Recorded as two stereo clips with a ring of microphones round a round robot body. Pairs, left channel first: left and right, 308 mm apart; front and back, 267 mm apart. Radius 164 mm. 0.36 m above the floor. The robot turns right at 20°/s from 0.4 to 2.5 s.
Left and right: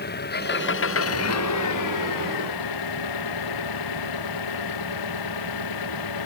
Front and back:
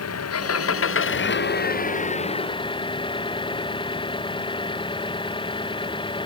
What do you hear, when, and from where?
0.0 s an engine running: 30° left; by 6.3 s 70° left